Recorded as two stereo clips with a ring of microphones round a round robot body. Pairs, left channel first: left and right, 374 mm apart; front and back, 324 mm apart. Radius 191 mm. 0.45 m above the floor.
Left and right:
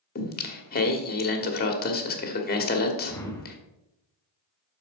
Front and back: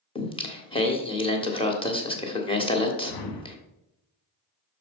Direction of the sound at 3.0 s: 5° left.